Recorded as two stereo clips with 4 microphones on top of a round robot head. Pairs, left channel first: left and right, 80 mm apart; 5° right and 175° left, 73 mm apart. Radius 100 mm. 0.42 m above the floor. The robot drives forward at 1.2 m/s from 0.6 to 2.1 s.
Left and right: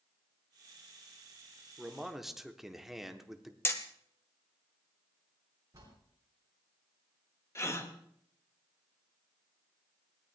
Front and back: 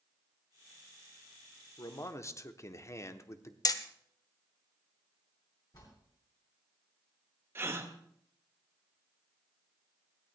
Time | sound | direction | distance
1.8 | a man speaking | straight ahead | 1.4 m
3.6 | hammering | 30° left | 1.1 m
5.7 | a bell | 40° right | 6.5 m
7.5 | a gasp | 135° left | 1.8 m